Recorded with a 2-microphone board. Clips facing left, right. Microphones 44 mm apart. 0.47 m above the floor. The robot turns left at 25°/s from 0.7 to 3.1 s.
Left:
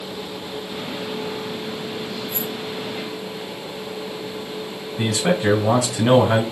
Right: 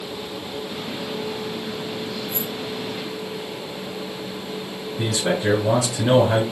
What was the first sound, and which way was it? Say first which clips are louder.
Keys jangling: left 1 dB; 60° left (ahead or behind).